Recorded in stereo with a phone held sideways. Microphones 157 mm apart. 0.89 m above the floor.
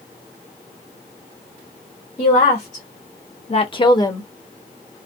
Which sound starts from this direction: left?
A woman speaking, at 2.2 s.